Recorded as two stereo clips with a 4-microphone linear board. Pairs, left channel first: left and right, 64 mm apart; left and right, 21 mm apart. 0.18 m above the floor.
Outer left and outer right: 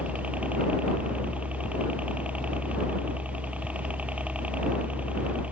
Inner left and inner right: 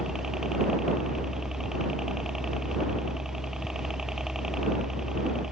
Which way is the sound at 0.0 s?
20° right (ahead or behind).